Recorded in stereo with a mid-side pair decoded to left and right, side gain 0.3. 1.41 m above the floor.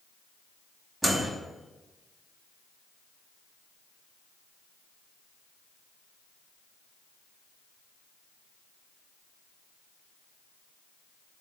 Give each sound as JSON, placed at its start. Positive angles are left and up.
{"t": 1.0, "sound": "a microwave", "azimuth_deg": -25, "distance_m": 0.9}